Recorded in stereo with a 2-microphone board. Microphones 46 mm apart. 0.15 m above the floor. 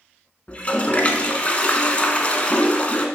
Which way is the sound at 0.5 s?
30° left (ahead or behind).